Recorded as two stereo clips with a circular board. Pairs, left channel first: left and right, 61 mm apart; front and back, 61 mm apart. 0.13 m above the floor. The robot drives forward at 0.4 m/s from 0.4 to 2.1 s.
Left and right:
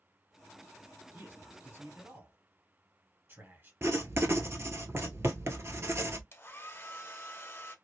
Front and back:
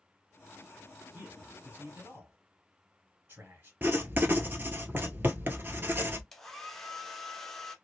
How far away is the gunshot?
No gunshot in this recording.